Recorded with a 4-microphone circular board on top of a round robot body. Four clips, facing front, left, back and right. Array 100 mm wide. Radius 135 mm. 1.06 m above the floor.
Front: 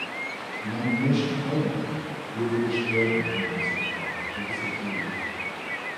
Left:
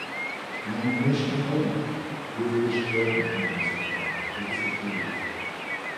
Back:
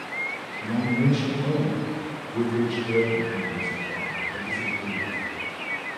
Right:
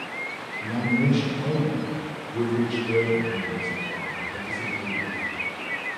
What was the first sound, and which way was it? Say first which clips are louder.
A man speaking: right 2 dB, back 2 dB; 135° right.